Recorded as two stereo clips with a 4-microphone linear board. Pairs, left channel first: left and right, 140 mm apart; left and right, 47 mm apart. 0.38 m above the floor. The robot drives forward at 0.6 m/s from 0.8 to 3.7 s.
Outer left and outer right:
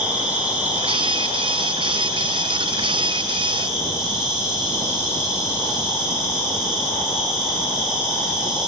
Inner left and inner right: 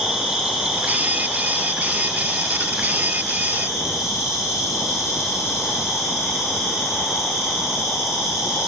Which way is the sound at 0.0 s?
10° right (ahead or behind).